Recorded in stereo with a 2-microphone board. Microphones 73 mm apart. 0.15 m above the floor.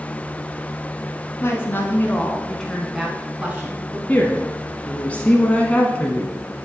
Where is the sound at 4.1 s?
20° left (ahead or behind), 1.1 m.